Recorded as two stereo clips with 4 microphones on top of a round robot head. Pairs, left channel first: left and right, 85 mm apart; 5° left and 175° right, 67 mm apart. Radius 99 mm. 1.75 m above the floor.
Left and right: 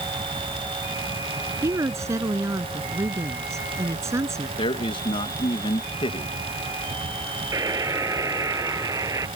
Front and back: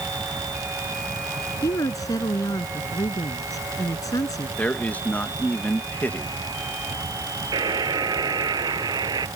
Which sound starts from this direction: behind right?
A buzzer, at 7.5 s.